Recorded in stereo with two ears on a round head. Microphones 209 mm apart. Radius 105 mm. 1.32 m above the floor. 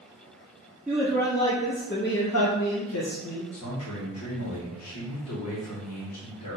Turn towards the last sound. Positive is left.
turn(degrees=75)  # may be behind; listen again after turning